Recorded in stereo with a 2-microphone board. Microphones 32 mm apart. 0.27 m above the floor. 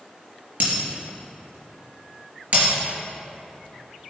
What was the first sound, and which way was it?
Breaking glass, 55° right (ahead or behind).